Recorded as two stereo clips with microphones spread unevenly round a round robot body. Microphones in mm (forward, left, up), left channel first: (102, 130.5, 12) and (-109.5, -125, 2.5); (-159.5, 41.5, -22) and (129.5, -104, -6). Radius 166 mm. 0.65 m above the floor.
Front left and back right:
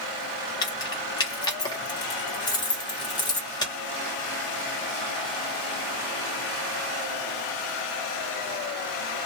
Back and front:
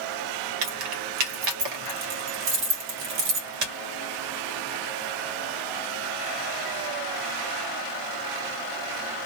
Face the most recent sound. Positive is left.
turn(degrees=-30)